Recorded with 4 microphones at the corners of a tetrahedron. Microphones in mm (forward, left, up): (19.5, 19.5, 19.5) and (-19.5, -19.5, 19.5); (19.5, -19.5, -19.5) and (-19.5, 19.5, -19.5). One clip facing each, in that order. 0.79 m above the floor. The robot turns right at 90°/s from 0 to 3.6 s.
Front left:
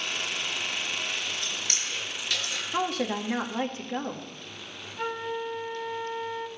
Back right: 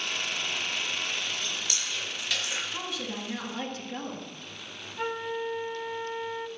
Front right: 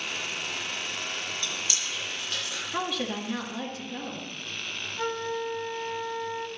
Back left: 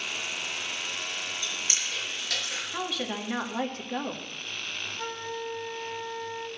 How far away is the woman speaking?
About 1.6 m.